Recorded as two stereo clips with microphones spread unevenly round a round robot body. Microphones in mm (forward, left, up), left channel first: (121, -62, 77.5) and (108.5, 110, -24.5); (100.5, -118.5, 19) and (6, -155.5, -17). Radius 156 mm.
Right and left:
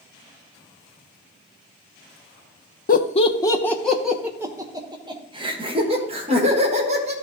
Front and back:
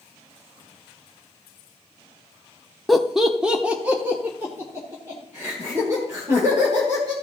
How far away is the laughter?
About 0.6 m.